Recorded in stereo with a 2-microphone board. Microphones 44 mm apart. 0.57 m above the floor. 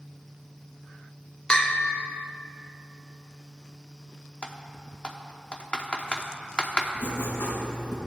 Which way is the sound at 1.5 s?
15° left (ahead or behind).